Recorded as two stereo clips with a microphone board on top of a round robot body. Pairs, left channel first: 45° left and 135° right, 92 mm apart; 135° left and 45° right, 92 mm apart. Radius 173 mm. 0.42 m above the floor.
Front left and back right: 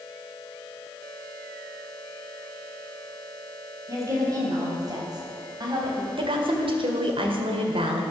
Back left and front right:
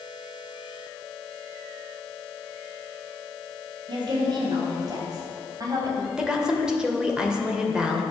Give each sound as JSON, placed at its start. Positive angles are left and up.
{"t": 3.9, "sound": "a woman speaking", "azimuth_deg": -80, "distance_m": 4.5}
{"t": 6.2, "sound": "a woman speaking", "azimuth_deg": -125, "distance_m": 2.5}